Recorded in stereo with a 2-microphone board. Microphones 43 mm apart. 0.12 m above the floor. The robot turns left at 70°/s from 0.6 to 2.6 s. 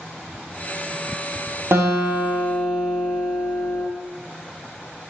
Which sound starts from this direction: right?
A guitar, at 1.7 s.